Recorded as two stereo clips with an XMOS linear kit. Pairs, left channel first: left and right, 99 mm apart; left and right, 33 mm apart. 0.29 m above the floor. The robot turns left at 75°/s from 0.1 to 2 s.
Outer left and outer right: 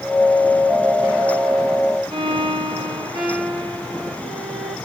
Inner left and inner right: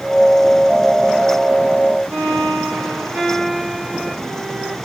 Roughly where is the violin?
Right.